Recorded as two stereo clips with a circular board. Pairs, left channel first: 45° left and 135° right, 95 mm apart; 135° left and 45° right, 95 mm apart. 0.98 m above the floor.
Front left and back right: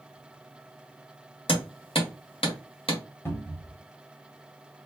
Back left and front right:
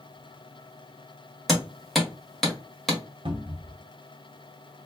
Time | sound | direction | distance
1.5 | hammering | 45° left | 1.5 m
3.2 | a cupboard door | 20° right | 1.1 m